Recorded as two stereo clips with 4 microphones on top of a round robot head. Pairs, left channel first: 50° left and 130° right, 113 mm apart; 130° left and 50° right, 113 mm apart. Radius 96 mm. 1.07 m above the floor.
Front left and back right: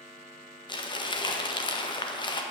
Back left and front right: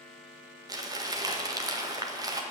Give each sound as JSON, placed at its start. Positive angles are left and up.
{"t": 0.7, "sound": "crumpling", "azimuth_deg": 5, "distance_m": 1.7}